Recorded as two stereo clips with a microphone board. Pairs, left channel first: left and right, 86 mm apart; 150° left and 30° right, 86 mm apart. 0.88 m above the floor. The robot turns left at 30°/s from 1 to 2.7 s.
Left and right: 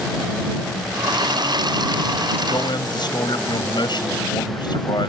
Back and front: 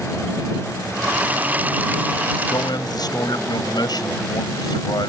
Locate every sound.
2.5 s a man speaking: 125° left; by 5.1 s 115° left